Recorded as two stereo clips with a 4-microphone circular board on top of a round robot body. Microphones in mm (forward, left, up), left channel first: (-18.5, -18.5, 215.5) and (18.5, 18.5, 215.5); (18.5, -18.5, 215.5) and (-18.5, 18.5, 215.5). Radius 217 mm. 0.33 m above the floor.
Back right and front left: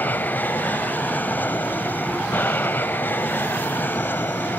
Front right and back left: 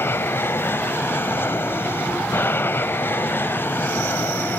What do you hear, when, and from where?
0.0 s an aircraft: 85° right; by 4.6 s 90° right